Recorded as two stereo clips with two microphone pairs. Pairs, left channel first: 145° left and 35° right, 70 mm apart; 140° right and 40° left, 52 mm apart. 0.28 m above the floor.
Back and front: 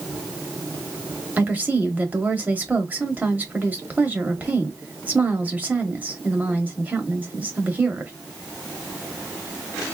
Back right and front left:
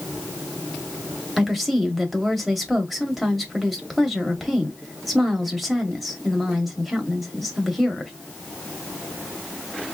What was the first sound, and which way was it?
A woman speaking, 45° right.